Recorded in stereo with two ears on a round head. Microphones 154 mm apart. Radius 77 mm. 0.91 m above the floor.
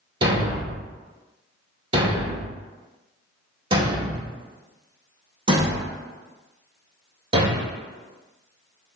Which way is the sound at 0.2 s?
30° right (ahead or behind).